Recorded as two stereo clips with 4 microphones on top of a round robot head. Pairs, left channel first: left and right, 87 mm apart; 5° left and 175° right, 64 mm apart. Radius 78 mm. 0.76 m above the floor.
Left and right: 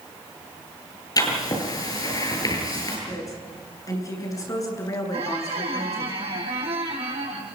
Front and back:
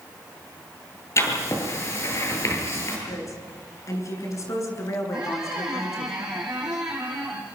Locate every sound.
1.2 s writing: 45° left, 9 m
3.1 s a woman speaking: 40° left, 8.5 m
5.1 s a squeak: 95° right, 5.5 m